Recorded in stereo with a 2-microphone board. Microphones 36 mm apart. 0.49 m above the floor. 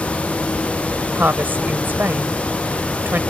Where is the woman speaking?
65° right (ahead or behind).